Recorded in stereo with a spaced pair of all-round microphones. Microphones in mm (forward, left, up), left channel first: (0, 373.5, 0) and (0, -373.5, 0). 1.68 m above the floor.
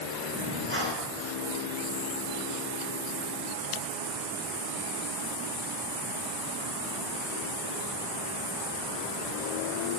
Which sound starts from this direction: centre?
Breathing, at 0.3 s.